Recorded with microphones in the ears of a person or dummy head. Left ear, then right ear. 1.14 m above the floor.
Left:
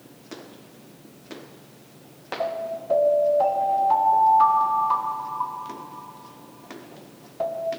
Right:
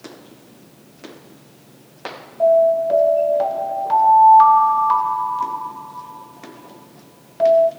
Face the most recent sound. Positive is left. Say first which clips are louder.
# right 16 dB
turn(degrees=-35)  # may be behind; listen again after turning